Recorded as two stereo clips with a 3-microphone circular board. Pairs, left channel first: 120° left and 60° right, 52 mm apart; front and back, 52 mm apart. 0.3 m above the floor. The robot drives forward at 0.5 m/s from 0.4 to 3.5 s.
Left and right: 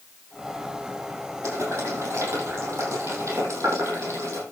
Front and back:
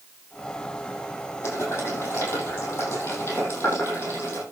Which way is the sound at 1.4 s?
40° right.